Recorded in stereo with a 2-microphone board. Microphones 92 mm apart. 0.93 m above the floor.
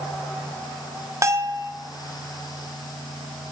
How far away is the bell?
About 0.8 m.